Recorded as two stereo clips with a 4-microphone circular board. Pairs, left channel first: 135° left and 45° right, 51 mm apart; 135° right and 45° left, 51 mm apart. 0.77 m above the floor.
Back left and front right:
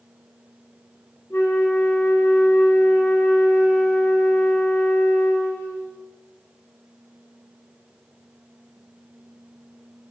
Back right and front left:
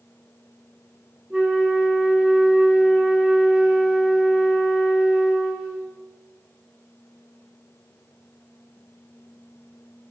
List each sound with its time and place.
1.3 s a flute: 105° left, 2 m